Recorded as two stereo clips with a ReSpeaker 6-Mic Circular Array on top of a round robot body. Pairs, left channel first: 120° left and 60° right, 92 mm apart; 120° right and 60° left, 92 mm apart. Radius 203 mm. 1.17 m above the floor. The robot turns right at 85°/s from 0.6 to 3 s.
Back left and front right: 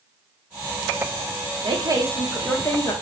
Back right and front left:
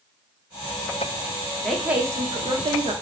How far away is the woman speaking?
About 1.0 m.